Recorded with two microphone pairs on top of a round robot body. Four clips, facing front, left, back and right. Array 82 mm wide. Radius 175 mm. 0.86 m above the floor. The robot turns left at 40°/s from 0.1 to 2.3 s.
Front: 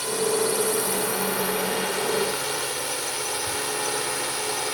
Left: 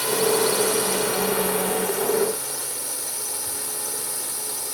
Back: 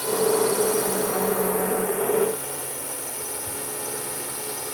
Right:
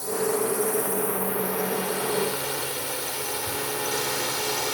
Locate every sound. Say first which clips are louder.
0.0 s a drone: left 4 dB, back 3 dB; 90° left; by 4.8 s 20° right